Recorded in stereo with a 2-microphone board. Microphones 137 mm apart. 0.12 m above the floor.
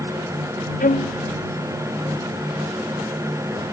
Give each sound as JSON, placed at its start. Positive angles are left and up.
{"t": 0.8, "sound": "a violin", "side_deg": 75}